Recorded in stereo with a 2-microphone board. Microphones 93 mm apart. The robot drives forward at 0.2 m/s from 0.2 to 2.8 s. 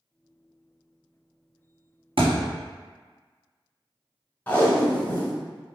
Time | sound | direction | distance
2.2 | a thud | 80° right | 0.9 m
4.5 | tape being pulled | 20° left (ahead or behind) | 0.7 m